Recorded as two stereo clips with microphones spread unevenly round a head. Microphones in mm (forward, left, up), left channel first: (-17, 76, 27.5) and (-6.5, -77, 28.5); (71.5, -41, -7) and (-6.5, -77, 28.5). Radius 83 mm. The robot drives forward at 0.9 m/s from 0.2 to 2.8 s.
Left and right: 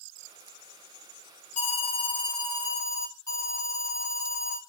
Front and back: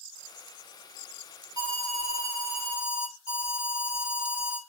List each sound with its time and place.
1.6 s an alarm: 135° left, 0.8 m; by 4.6 s 165° left, 1.7 m